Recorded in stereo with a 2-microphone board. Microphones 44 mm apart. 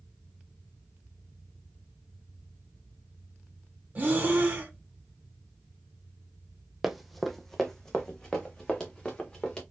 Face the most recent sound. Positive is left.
turn(degrees=20)  # may be behind; listen again after turning